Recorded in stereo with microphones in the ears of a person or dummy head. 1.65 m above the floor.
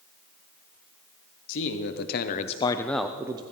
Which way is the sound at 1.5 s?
75° left (ahead or behind).